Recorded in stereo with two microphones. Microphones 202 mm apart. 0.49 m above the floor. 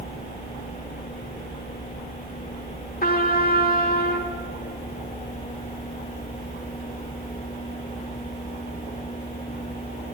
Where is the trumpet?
45° left (ahead or behind), 1.7 m.